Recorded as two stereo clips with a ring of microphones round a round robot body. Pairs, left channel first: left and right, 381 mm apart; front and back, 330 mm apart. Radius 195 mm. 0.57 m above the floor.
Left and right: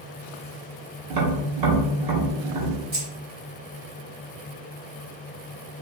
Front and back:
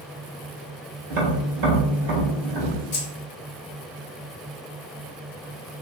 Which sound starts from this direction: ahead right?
Keys jangling, at 2.9 s.